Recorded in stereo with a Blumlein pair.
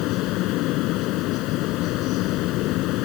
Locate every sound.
0.0 s a fan: 40° left